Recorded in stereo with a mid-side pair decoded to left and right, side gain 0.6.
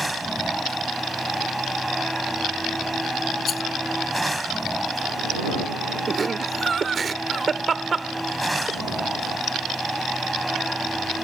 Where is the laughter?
25° right.